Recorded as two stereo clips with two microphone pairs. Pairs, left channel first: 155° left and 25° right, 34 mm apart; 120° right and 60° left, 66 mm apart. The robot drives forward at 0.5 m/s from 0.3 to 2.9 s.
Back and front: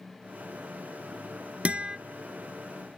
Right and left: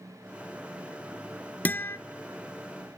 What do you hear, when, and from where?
1.6 s a guitar: 65° right, 0.6 m; by 2.0 s 90° right, 0.5 m